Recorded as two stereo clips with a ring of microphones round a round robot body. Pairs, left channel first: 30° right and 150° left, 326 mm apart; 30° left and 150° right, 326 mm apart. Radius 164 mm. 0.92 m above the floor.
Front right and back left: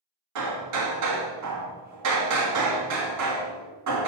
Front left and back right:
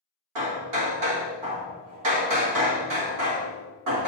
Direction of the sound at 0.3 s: 175° right.